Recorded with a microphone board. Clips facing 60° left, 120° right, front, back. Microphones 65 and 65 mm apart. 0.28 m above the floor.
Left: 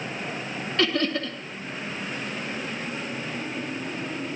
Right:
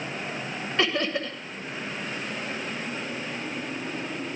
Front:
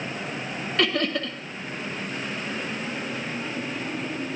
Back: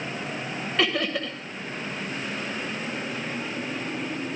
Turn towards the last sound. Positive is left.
turn(degrees=-100)